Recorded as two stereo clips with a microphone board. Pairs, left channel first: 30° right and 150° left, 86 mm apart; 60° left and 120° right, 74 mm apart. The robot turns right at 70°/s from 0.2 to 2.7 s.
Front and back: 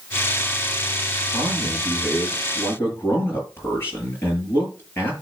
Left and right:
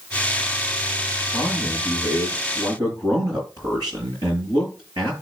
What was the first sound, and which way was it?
A man speaking, 170° left.